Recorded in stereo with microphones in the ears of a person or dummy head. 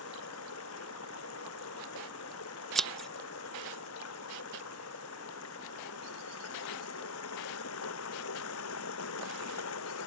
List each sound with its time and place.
0.0 s running water: 80° left
2.8 s scissors: centre (ahead or behind)